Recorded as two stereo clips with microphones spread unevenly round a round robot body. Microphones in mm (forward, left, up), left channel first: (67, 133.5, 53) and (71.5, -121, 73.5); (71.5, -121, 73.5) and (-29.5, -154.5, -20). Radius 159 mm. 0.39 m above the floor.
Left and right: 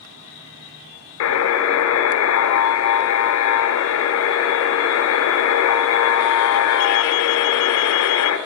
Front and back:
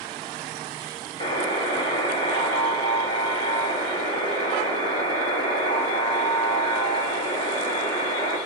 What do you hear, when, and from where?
1.2 s a buzzer: 105° left, 0.9 m